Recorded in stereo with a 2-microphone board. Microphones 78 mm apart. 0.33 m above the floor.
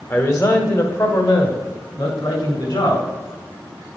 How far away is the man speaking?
About 1.5 m.